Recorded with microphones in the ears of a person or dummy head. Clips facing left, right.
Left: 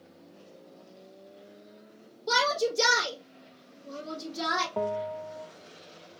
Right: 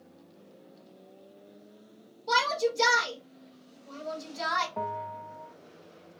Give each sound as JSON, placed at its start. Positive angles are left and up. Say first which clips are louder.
{"t": 2.3, "sound": "a shout", "louder": "even", "side_deg": 85, "distance_m": 4.0}
{"t": 4.8, "sound": "a bell", "louder": "left 6 dB", "side_deg": 45, "distance_m": 0.8}